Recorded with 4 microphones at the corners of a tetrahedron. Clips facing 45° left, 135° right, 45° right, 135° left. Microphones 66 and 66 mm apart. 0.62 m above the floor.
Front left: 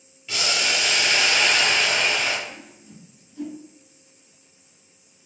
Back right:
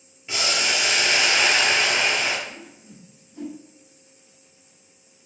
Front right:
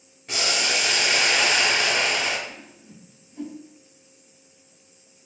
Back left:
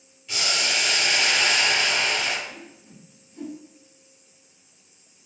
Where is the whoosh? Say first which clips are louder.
Even, even; 110° right, 1.7 m.